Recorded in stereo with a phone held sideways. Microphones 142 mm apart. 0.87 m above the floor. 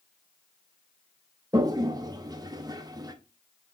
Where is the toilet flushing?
30° right (ahead or behind), 0.6 m.